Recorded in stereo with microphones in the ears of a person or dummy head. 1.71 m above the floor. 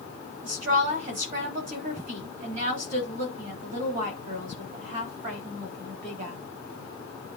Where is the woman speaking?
45° right (ahead or behind), 3 m.